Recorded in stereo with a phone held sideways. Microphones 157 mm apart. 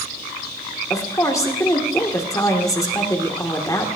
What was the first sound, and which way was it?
A woman speaking, 20° left (ahead or behind).